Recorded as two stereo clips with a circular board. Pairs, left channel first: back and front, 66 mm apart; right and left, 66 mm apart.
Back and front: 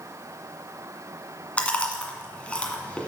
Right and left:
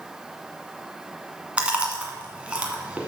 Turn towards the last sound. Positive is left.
turn(degrees=135)